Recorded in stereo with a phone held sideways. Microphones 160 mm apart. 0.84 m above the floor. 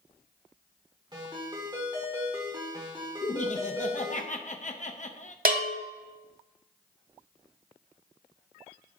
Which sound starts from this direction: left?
Laughter, at 3.2 s.